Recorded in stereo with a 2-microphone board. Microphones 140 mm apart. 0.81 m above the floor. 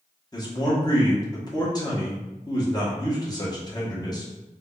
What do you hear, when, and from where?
0.3 s a man speaking: 30° left (ahead or behind), 1.2 m